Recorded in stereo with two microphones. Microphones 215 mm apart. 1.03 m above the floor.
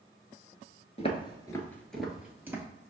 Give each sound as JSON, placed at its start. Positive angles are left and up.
{"t": 1.0, "sound": "footsteps", "side_deg": 30, "distance_m": 1.1}